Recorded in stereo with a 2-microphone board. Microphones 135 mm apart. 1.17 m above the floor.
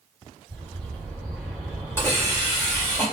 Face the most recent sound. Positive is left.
turn(degrees=20)  # may be behind; listen again after turning